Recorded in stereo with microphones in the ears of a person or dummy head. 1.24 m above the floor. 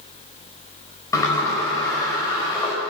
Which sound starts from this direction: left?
A sliding door, at 1.1 s.